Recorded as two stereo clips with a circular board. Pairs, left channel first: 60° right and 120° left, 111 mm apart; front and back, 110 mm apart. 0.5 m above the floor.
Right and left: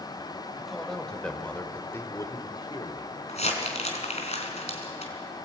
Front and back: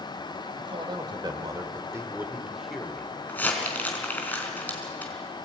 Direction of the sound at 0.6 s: 150° right.